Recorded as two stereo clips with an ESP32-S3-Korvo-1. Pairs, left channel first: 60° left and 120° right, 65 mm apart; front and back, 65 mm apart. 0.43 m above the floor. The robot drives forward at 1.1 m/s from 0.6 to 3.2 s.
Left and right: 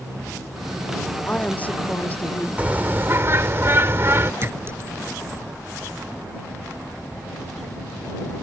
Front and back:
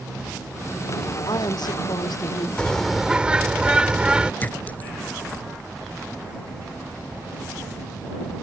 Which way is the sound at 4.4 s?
65° right.